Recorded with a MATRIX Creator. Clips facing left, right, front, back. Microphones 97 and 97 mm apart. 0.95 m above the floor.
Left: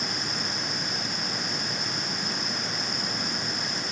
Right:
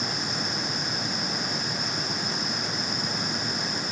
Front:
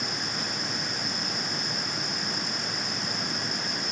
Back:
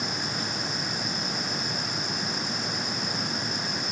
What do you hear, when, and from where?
Only background noise.